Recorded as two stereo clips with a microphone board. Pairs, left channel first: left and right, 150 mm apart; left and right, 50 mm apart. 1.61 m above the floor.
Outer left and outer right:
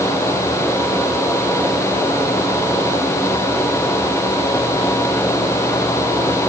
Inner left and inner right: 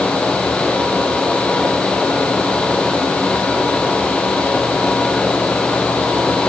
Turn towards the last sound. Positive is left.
No sound to turn to.